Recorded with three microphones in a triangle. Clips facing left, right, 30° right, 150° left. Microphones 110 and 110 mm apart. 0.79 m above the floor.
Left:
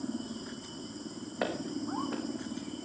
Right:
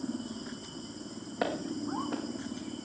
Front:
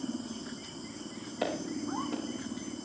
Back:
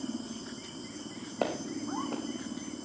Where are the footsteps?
175° right, 3 m.